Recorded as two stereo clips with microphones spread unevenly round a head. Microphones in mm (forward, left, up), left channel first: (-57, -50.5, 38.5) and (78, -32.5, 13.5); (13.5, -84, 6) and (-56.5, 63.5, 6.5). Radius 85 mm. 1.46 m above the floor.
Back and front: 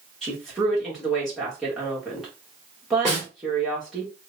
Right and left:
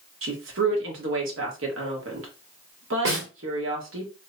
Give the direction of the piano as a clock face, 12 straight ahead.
No piano in this recording.